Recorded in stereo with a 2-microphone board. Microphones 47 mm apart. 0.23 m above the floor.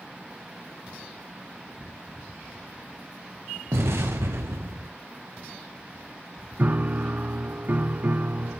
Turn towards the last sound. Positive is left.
turn(degrees=-40)  # may be behind; listen again after turning